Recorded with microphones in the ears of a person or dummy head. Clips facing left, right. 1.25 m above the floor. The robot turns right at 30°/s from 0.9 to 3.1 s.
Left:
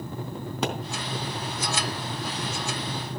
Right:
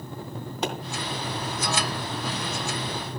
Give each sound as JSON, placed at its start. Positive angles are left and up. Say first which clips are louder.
{"t": 0.6, "sound": "a pop", "louder": "left 1 dB", "side_deg": 70, "distance_m": 3.0}